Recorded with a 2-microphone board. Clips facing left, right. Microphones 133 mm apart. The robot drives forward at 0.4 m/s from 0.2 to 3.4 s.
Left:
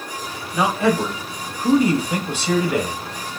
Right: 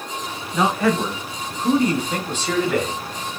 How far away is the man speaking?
About 1.3 m.